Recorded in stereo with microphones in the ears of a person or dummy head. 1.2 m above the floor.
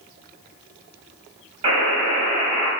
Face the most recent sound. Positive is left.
turn(degrees=-25)  # may be behind; listen again after turning